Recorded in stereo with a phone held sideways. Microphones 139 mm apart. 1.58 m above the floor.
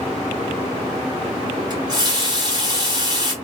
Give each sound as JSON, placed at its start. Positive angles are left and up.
{"t": 1.7, "sound": "a running tap", "side_deg": -30, "distance_m": 0.9}